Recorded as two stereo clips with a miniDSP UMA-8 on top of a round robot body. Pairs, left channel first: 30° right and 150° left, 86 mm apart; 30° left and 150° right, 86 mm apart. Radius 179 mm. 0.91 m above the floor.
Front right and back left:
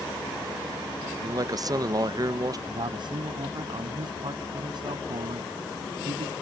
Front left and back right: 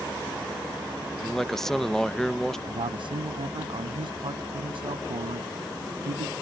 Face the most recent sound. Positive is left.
turn(degrees=-175)